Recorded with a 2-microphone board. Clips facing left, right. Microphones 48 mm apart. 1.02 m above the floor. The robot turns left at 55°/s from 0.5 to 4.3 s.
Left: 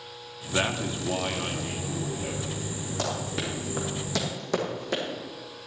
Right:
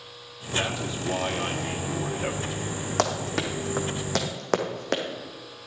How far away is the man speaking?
About 1.9 m.